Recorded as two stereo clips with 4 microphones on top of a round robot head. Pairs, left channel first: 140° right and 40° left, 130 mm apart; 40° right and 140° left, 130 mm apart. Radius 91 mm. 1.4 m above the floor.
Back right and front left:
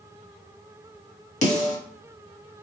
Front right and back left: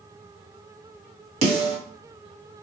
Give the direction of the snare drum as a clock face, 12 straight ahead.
6 o'clock.